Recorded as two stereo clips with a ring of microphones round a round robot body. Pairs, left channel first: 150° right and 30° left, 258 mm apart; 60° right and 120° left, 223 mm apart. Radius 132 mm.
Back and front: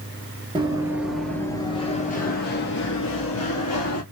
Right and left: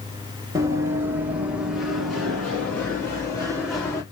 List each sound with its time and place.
0.6 s running footsteps: 70° left, 1.0 m; by 4.0 s 135° right, 1.7 m